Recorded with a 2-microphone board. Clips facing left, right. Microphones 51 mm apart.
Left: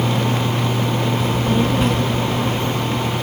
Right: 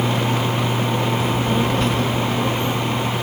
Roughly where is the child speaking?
Centre.